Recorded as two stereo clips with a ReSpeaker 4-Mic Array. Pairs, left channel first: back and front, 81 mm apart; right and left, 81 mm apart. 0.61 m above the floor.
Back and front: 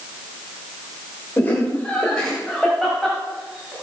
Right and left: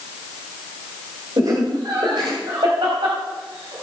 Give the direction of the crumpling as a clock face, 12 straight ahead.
No crumpling in this recording.